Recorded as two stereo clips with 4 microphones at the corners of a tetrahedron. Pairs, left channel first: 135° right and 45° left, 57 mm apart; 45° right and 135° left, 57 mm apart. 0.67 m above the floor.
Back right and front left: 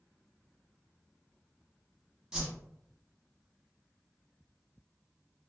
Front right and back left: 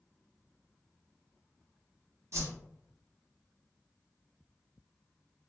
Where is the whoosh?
120° left, 0.8 m.